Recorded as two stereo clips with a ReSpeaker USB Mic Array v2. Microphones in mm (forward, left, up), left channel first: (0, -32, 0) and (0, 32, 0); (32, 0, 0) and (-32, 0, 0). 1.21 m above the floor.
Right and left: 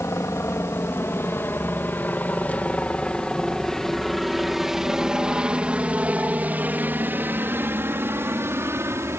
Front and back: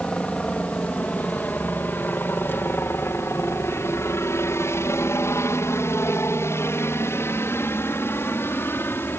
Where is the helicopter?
65° right; by 9.2 s 50° left.